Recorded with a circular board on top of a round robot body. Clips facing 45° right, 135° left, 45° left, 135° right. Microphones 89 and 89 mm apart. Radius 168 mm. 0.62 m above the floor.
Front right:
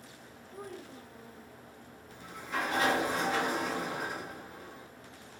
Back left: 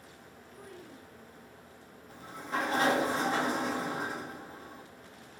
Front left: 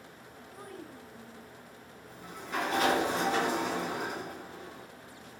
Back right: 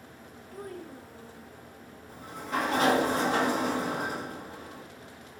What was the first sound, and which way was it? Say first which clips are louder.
A child speaking: front right 5 dB, back right 5 dB; 90° right.